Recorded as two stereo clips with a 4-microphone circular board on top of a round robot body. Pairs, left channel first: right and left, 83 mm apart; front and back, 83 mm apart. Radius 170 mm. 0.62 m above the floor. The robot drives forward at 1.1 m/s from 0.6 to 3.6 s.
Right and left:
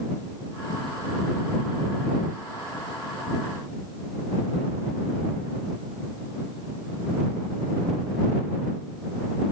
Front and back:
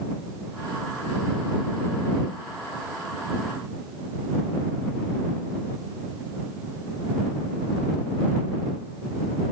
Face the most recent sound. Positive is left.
No sound to turn to.